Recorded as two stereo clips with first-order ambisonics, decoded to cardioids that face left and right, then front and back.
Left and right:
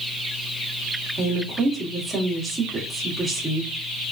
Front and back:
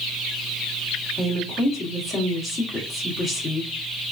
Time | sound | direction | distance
1.2 | a woman speaking | 20° right | 1.0 m